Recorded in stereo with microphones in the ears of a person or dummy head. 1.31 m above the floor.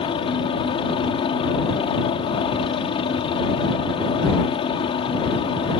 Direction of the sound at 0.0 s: 25° left (ahead or behind).